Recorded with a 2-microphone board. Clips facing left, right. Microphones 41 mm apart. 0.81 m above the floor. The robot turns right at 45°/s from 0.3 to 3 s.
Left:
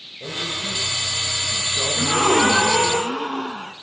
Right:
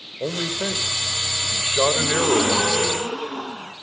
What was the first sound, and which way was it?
A man speaking, 130° right.